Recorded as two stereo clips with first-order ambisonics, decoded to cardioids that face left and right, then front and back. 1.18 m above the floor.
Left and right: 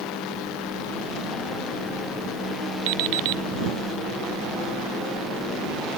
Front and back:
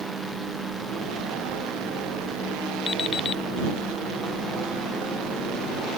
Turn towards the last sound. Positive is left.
turn(degrees=-70)